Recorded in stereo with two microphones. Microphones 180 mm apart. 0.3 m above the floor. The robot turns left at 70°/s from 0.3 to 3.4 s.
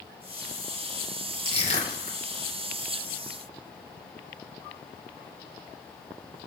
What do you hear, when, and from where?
1.4 s crushing: 30° left (ahead or behind), 0.9 m; by 2.2 s 40° left (ahead or behind), 0.9 m